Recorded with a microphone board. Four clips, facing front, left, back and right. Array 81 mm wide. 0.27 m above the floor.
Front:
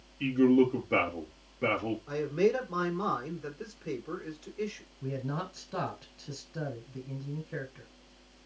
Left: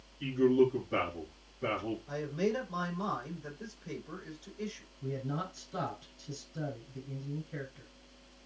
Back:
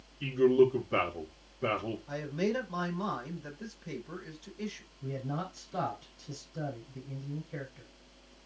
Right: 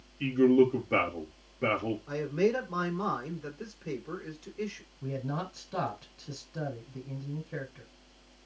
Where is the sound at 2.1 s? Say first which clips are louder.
Right 5 dB, front 6 dB; 45° right, 6 m.